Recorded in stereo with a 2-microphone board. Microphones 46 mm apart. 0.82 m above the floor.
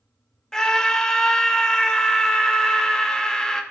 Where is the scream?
15° left (ahead or behind), 0.8 m.